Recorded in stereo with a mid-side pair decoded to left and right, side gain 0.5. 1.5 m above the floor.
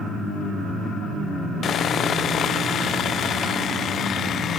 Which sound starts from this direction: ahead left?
Sawing, at 1.6 s.